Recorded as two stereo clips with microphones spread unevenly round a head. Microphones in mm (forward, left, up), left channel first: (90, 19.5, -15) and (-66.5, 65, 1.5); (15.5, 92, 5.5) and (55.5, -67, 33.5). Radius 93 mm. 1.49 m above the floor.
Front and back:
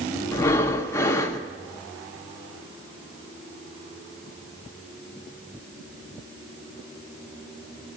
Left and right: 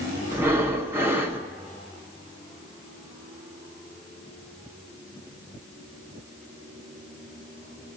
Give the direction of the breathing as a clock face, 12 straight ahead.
3 o'clock.